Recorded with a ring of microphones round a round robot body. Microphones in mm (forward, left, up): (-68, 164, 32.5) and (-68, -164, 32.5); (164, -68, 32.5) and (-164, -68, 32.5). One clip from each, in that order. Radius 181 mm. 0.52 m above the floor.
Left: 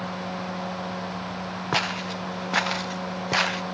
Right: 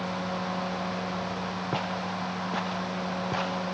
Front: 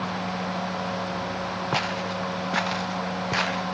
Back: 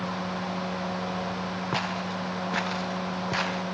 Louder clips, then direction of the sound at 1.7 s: Left 8 dB, front 3 dB; 85° left.